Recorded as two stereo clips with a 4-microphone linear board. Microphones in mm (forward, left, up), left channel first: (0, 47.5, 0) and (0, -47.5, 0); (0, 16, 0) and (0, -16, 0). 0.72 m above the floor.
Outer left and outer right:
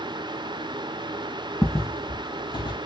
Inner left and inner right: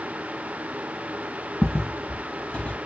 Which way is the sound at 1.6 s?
20° left (ahead or behind).